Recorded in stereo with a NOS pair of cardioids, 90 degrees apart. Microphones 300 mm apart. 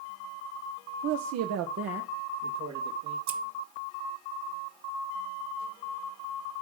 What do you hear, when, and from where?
1.0 s a man speaking: 65° right, 0.7 m
3.3 s scissors: 60° right, 1.4 m